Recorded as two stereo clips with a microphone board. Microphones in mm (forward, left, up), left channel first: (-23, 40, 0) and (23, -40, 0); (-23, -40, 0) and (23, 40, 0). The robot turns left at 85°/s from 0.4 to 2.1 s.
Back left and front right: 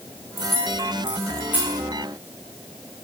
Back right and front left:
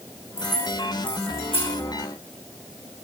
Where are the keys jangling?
35° right, 7 m; by 1.8 s 155° right, 7 m.